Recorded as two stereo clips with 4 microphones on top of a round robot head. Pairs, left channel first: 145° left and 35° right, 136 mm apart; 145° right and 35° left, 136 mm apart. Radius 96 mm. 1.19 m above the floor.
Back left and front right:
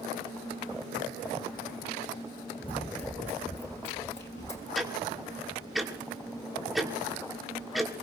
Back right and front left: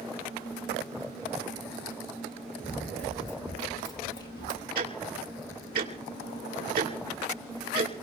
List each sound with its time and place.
2.6 s running footsteps: 170° left, 1.3 m; by 4.7 s 165° right, 2.5 m
4.8 s ticking: 55° left, 2.5 m